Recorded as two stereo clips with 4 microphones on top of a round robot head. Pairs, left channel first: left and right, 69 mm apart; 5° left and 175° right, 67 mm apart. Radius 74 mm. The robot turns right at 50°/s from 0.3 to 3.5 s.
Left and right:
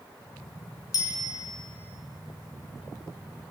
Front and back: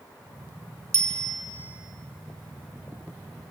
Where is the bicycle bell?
135° left, 4 m; by 1.3 s 155° left, 4 m.